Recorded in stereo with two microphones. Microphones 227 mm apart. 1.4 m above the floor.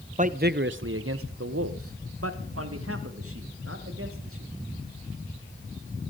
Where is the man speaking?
35° right (ahead or behind), 0.8 m; by 4.5 s 75° right (ahead or behind), 3 m.